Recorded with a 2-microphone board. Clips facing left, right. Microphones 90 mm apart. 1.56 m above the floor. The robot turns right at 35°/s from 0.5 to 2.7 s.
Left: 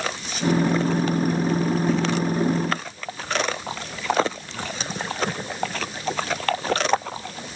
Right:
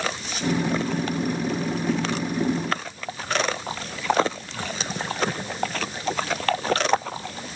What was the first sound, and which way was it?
Only background noise.